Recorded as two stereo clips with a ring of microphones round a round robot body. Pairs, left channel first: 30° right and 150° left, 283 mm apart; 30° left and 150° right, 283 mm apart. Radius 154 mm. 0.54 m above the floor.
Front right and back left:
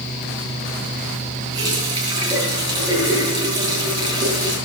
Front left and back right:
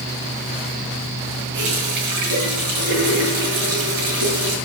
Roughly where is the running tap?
Behind right.